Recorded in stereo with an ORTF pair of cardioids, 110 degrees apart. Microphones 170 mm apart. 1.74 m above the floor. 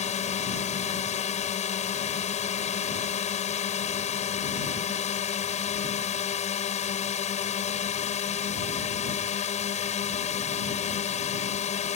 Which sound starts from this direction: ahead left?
A drone, at 0.0 s.